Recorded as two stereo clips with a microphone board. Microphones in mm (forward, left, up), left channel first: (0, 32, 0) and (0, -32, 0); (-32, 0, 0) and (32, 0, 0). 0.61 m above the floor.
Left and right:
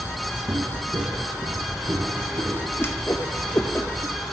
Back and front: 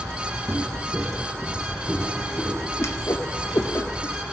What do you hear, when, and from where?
0.5 s footsteps: 60° right, 1.1 m; by 2.7 s 90° right, 3 m
2.8 s a whoosh: 140° left, 0.7 m